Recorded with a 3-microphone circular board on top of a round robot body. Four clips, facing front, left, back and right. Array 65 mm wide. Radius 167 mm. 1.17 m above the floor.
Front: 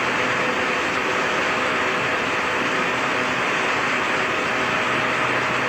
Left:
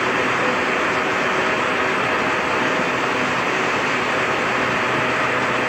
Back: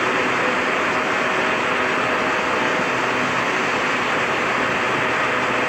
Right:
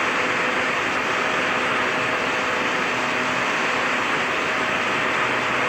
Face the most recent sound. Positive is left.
No sound to turn to.